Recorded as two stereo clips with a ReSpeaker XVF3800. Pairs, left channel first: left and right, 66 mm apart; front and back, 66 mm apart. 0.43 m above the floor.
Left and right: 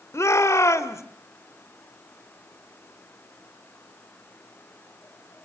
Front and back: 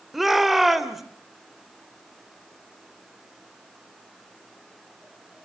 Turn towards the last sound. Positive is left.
turn(degrees=95)